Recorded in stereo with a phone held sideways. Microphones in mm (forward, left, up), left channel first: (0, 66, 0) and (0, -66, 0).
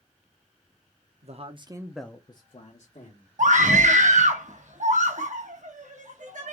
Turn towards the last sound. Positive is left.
turn(degrees=-70)  # may be behind; listen again after turning